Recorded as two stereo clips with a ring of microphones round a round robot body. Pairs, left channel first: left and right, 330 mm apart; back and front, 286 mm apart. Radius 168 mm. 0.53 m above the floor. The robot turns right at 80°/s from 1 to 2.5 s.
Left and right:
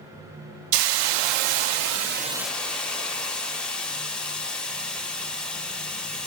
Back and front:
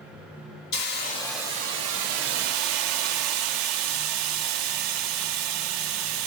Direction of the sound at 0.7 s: 115° right.